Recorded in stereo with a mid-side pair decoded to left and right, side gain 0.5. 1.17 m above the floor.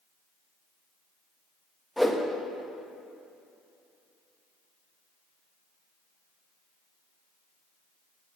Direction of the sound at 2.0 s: Straight ahead.